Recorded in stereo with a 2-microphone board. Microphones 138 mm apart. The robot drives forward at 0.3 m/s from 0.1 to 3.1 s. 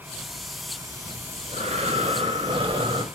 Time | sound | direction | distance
1.1 | breathing | 55° right (ahead or behind) | 0.7 m